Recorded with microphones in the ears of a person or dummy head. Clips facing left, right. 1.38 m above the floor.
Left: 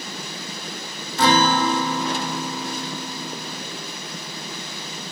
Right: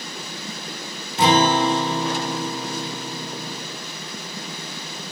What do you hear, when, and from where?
1.2 s a guitar: 15° right (ahead or behind), 0.8 m